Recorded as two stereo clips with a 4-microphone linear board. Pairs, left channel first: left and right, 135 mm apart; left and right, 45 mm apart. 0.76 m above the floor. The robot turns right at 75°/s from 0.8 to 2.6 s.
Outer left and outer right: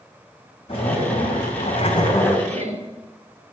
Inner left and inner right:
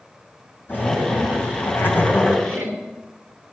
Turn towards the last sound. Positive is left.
turn(degrees=-75)  # may be behind; listen again after turning